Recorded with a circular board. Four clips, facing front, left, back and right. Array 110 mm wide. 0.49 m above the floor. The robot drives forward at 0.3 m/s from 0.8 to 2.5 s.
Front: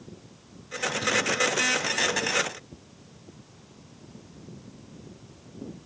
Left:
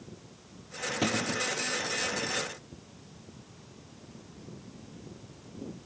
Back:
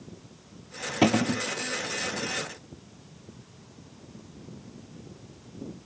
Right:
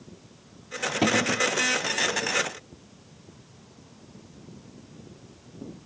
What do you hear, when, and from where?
1.0 s a cupboard door: 160° right